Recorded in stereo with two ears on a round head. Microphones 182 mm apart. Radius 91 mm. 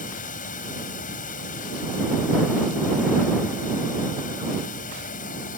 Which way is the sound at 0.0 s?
45° left (ahead or behind).